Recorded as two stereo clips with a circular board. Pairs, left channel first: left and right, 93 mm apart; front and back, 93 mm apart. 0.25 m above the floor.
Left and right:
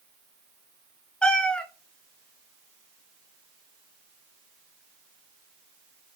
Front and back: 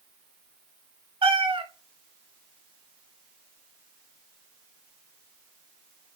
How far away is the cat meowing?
About 1.0 m.